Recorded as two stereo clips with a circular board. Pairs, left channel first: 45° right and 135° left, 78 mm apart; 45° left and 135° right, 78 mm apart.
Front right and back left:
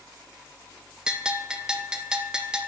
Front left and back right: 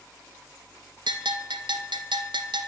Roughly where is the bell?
Behind right.